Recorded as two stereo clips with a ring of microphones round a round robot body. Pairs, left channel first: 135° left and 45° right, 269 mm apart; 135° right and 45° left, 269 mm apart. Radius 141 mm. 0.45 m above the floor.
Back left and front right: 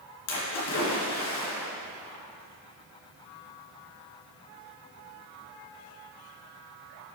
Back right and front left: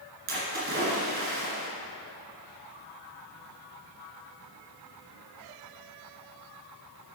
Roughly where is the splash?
Left.